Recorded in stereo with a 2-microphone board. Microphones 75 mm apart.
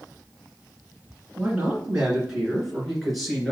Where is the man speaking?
20° right (ahead or behind), 2.0 m; by 3.5 s 5° left (ahead or behind), 2.5 m.